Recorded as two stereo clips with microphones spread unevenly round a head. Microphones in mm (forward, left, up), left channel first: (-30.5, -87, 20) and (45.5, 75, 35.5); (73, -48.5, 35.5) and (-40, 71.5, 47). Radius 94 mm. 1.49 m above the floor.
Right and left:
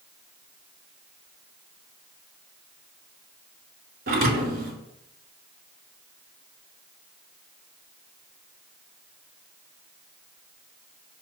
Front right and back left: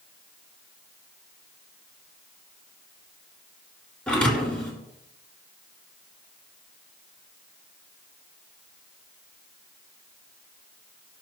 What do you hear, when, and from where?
4.1 s a thud: 40° left, 2.5 m